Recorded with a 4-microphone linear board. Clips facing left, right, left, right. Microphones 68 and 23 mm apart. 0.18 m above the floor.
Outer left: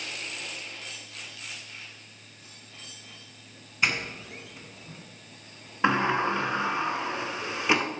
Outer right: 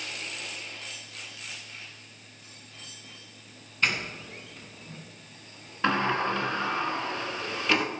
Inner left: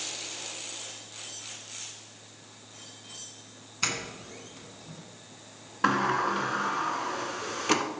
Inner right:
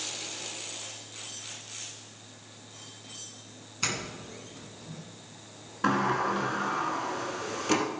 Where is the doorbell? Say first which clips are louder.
Outer left 1 dB, inner left 1 dB; 10° left (ahead or behind), 1.9 m.